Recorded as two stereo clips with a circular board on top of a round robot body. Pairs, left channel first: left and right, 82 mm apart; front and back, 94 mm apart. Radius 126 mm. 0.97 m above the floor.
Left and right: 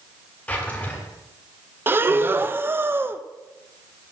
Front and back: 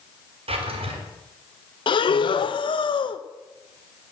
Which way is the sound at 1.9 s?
25° right.